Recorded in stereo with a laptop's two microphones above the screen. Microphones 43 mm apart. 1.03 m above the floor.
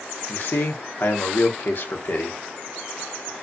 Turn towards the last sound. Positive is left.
turn(degrees=50)  # may be behind; listen again after turning